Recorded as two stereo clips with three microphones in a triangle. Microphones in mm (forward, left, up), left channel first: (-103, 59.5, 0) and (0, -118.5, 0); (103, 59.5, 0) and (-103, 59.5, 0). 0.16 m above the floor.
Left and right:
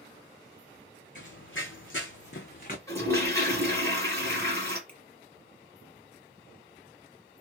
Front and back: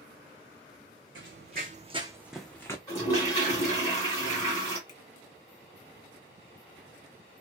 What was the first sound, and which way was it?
Running footsteps, 155° left.